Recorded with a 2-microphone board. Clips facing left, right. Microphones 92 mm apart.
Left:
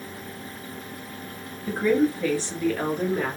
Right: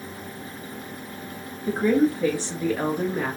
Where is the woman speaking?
30° right (ahead or behind), 1.8 m; by 3.4 s centre (ahead or behind), 1.3 m.